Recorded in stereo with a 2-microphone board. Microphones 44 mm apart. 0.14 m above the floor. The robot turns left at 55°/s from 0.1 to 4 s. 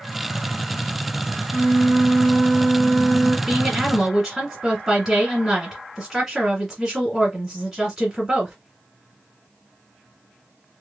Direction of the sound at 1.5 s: 15° right (ahead or behind).